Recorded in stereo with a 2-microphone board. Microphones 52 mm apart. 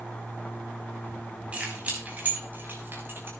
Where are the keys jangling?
25° right (ahead or behind), 4.5 m; by 3.3 s 50° right (ahead or behind), 4.5 m.